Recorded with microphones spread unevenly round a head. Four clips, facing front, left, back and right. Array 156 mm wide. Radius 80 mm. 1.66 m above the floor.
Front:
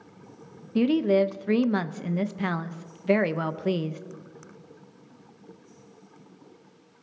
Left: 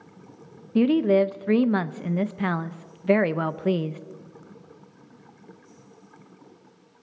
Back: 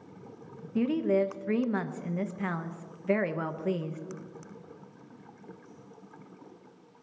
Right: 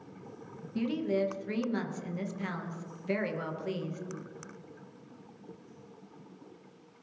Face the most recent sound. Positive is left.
turn(degrees=65)